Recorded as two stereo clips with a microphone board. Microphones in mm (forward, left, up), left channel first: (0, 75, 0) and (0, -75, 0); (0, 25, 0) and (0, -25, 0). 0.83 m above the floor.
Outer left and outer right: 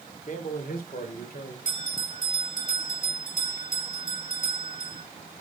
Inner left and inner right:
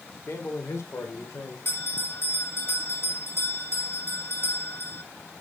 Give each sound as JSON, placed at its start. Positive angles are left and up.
{"t": 0.3, "sound": "a man speaking", "side_deg": 55, "distance_m": 2.0}
{"t": 1.6, "sound": "a bell", "side_deg": 60, "distance_m": 6.0}